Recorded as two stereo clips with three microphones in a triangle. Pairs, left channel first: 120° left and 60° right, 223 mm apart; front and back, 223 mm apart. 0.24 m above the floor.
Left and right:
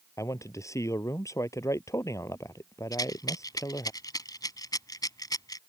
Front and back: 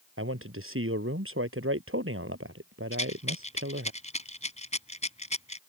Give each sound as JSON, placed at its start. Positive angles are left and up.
{"t": 0.2, "sound": "a man speaking", "azimuth_deg": -165}
{"t": 2.9, "sound": "a rattle", "azimuth_deg": 50}